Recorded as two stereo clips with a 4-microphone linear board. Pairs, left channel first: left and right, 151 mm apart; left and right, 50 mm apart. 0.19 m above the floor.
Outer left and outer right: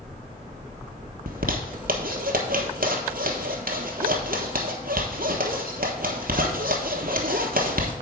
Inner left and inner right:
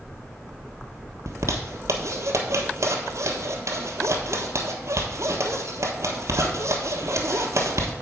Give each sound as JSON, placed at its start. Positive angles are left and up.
{"t": 1.3, "sound": "a zipper", "side_deg": -75, "distance_m": 1.3}